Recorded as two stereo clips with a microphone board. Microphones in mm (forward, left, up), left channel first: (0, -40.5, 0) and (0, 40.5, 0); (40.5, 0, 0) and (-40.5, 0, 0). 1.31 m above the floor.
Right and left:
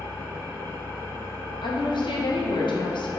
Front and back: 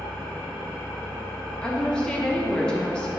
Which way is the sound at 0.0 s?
80° right.